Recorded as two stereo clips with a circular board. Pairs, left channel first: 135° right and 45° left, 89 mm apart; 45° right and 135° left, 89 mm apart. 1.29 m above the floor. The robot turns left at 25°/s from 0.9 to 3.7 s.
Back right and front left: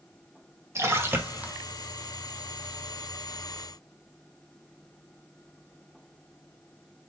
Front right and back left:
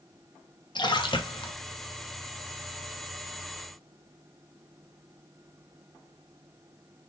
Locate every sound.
0.8 s a splash: 15° right, 1.0 m; by 1.5 s 30° right, 1.0 m